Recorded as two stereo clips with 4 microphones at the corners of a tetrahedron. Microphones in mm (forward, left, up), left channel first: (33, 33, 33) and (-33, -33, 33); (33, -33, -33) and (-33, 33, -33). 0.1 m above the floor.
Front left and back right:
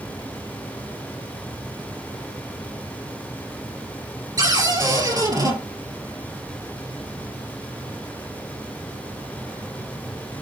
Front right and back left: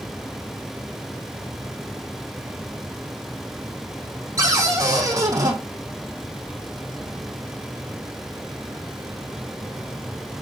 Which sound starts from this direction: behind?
A cupboard door, at 4.4 s.